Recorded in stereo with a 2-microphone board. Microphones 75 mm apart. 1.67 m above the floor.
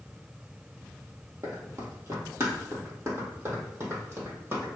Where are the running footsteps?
30° right (ahead or behind), 1.9 m.